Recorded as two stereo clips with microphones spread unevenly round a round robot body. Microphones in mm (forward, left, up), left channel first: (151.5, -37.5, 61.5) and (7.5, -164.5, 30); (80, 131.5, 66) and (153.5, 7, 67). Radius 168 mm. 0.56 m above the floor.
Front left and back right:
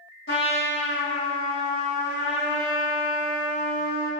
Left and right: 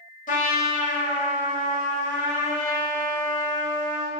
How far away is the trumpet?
About 1.3 m.